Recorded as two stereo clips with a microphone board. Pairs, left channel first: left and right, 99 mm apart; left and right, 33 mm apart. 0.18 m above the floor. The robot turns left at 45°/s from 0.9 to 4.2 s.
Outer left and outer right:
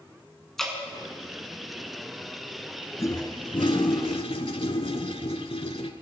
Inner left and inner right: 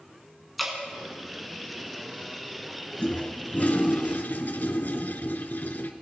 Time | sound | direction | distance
0.6 | dripping | 5° left (ahead or behind) | 1.8 m
3.0 | a toilet flushing | 145° left | 0.6 m